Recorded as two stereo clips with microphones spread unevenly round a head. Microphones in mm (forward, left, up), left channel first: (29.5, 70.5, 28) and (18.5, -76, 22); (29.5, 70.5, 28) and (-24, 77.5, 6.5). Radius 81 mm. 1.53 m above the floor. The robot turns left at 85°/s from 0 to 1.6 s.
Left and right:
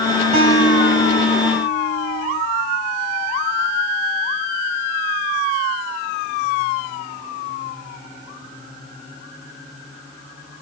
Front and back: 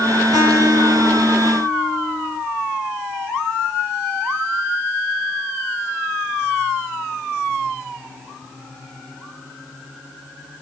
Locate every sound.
0.3 s a guitar: 150° right, 4.5 m; by 2.4 s 105° left, 4.5 m